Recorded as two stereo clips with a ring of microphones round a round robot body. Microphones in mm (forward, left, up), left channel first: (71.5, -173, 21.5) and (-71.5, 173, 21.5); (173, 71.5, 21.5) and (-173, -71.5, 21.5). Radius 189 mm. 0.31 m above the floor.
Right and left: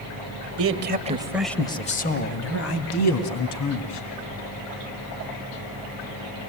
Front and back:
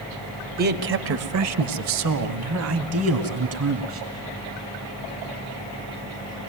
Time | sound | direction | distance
0.6 | a man speaking | 145° left | 1.6 m